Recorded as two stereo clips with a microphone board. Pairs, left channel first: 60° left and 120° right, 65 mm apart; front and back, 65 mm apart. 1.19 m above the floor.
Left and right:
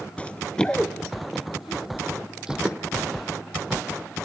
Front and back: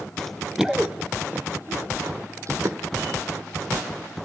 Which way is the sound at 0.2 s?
65° left.